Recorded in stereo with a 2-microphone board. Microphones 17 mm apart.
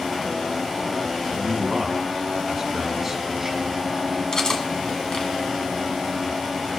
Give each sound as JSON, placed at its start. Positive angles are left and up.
{"t": 1.3, "sound": "a man speaking", "side_deg": -20, "distance_m": 1.9}
{"t": 4.3, "sound": "cutlery clinking", "side_deg": 35, "distance_m": 1.0}